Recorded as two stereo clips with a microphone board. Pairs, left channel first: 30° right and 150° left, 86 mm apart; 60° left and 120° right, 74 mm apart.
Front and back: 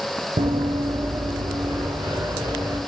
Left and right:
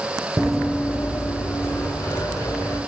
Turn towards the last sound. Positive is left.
turn(degrees=120)